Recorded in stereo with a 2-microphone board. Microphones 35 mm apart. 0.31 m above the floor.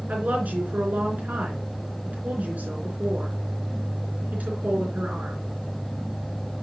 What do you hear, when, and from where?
0.1 s a woman speaking: 45° right (ahead or behind), 3.5 m